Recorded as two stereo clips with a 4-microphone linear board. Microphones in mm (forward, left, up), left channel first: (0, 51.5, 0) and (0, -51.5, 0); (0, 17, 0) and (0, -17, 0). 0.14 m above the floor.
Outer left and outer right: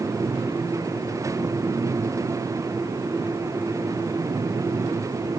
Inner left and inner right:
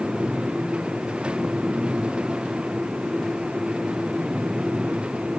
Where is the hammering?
I don't hear hammering.